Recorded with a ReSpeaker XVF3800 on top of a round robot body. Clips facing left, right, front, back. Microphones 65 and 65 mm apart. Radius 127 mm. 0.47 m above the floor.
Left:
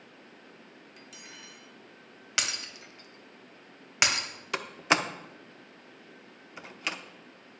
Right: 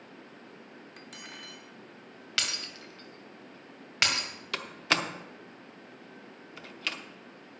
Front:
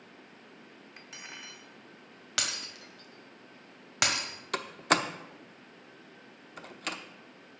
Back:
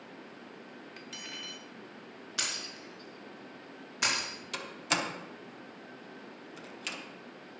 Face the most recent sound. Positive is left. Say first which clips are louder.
# left 3 dB, front 6 dB
turn(degrees=25)